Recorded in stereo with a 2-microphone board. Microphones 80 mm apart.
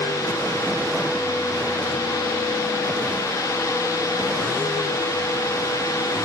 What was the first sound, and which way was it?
Only background noise.